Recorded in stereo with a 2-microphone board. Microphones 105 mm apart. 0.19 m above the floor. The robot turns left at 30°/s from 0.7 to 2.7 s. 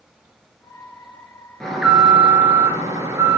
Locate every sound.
1.6 s an alarm: 5° left, 1.9 m; by 3.4 s 30° right, 1.9 m